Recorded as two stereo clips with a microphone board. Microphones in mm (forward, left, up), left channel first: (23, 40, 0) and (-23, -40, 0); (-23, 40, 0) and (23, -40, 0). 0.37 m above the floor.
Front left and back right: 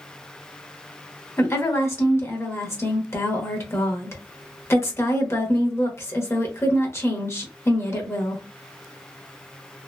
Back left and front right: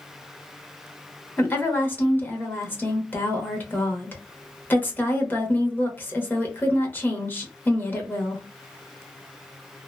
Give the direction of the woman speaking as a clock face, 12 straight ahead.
9 o'clock.